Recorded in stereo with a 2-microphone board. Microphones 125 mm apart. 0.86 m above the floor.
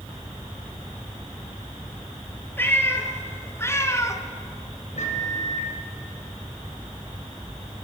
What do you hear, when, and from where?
2.6 s a cat meowing: 15° left (ahead or behind), 3.5 m; by 4.2 s 25° left (ahead or behind), 1.4 m
5.0 s a microwave: 75° left (ahead or behind), 4.5 m